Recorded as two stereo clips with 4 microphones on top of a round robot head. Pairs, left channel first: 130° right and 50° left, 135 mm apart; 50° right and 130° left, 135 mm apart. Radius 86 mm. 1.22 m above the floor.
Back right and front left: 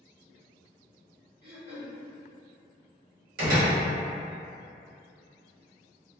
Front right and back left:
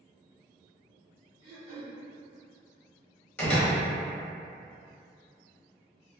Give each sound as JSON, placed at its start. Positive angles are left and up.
{"t": 1.4, "sound": "throat clearing", "azimuth_deg": 90, "distance_m": 0.9}
{"t": 3.4, "sound": "a door slam", "azimuth_deg": 30, "distance_m": 1.0}